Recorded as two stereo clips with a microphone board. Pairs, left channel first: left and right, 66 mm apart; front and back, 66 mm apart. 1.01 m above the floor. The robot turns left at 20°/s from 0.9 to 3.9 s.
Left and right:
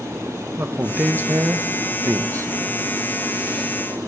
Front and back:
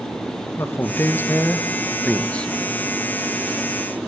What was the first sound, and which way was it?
A man speaking, 40° right.